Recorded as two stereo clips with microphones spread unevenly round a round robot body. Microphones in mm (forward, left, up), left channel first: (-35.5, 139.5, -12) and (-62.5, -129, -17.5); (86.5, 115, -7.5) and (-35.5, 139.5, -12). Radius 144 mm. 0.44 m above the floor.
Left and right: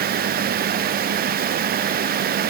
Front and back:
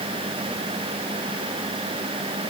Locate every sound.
Only background noise.